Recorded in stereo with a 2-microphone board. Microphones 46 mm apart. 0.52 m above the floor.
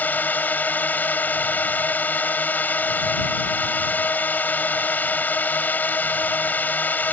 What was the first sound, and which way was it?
A drone, 40° left (ahead or behind).